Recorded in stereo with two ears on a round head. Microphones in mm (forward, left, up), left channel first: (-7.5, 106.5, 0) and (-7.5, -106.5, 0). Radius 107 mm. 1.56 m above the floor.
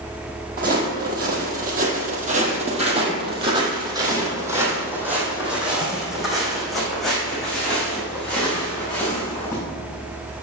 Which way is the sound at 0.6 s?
40° right (ahead or behind).